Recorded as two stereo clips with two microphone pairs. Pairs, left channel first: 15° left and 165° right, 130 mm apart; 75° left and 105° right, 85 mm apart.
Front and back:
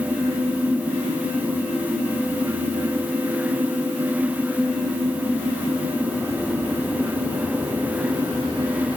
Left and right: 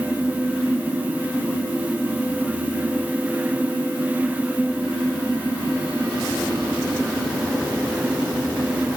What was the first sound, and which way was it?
Only background noise.